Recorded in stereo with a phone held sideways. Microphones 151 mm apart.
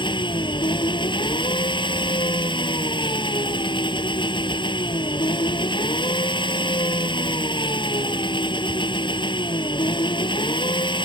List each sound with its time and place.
0.0 s an engine running: 30° left (ahead or behind)